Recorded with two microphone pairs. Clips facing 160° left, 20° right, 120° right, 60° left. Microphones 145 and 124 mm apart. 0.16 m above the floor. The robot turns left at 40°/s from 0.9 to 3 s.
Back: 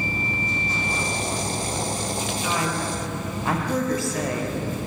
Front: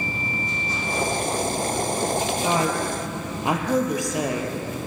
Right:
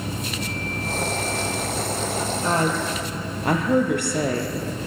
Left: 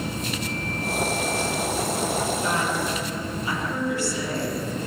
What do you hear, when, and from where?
2.4 s a woman speaking: 70° right, 4 m; by 4.5 s 90° right, 4 m